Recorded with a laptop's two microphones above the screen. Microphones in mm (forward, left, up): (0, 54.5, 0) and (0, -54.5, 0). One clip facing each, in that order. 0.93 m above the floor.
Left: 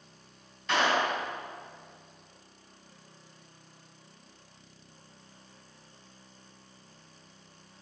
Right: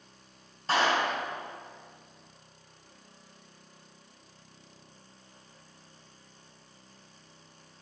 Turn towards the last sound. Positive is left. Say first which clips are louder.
# even
turn(degrees=-35)  # may be behind; listen again after turning